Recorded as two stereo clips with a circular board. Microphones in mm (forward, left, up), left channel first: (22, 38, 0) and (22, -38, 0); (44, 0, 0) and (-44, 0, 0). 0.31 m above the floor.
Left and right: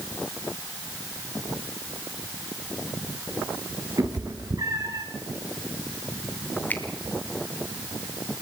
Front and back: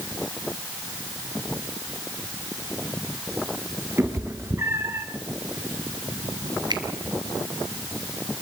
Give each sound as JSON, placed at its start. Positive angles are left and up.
{"t": 4.0, "sound": "a cat meowing", "azimuth_deg": -125, "distance_m": 3.5}
{"t": 6.7, "sound": "a finger snap", "azimuth_deg": 155, "distance_m": 2.0}